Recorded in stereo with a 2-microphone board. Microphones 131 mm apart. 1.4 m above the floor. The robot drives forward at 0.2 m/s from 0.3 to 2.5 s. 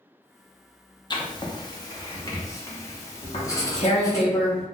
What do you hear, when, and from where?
1.1 s writing: 35° left (ahead or behind), 0.6 m; by 4.2 s 25° left (ahead or behind), 0.7 m
3.2 s tearing paper: 45° left (ahead or behind), 1.1 m